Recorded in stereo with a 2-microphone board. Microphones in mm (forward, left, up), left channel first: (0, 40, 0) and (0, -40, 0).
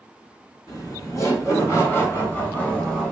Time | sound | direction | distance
0.7 | laughter | 45° left (ahead or behind) | 1.5 m